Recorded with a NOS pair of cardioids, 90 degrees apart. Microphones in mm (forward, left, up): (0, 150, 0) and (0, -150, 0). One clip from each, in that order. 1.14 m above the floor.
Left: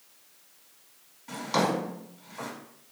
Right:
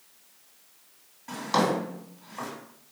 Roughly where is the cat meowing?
No cat meowing in this recording.